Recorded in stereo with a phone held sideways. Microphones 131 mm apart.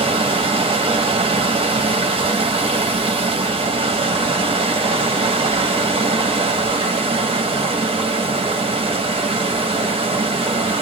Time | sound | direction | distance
0.0 | running water | 45° right (ahead or behind) | 0.8 m